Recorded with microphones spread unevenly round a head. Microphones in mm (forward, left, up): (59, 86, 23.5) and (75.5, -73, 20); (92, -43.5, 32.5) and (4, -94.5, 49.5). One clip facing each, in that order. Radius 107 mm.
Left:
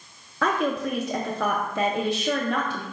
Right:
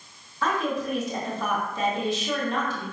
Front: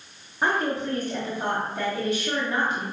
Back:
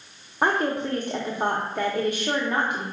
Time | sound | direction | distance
0.4 | a woman speaking | 150° left | 0.6 m